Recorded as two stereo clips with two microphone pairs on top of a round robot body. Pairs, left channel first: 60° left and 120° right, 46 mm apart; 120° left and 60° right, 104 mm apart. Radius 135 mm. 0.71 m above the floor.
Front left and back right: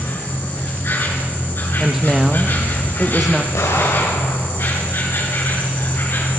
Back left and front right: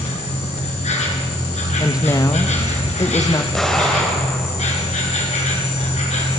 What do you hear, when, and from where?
0.0 s an insect: 105° left, 4 m
1.8 s a woman speaking: 165° left, 1.1 m
3.5 s an explosion: 35° left, 3 m